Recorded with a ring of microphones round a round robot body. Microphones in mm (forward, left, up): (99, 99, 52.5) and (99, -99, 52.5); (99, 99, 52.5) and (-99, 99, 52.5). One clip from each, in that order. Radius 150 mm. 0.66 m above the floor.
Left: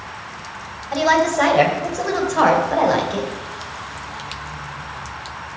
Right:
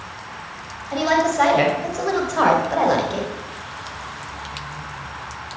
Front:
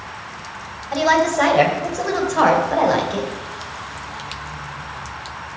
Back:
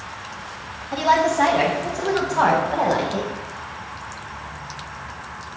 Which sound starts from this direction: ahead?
A woman speaking, at 0.9 s.